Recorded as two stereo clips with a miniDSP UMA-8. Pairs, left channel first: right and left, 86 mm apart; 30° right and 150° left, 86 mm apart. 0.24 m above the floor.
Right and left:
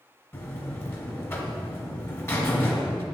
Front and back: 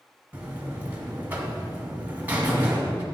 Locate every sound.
0.3 s a buzzer: 145° right, 1.1 m